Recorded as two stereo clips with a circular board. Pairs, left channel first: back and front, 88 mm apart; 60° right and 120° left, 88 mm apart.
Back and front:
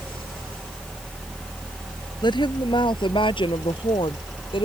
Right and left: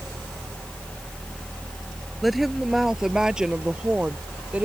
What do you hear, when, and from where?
2.2 s a woman speaking: 150° right; by 4.7 s 165° right